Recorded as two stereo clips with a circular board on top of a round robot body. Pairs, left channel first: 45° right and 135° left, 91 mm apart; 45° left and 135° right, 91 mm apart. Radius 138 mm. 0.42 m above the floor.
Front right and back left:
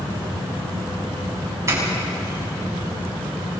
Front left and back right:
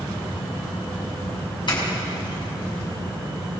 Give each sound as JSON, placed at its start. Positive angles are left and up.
{"t": 1.7, "sound": "a doorbell", "azimuth_deg": 80, "distance_m": 6.5}